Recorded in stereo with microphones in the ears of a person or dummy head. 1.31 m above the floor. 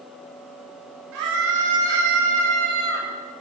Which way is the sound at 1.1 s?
65° right (ahead or behind).